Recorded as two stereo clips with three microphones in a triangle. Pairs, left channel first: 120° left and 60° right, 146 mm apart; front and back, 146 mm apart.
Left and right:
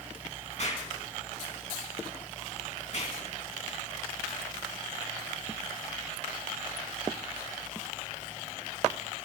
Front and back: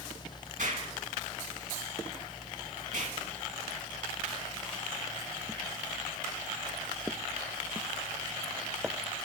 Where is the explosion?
160° left, 3.5 m.